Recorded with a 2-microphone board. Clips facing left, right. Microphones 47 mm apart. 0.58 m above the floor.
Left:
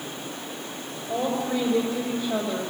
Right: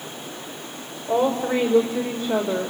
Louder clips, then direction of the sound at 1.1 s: Right 5 dB; 55° right (ahead or behind).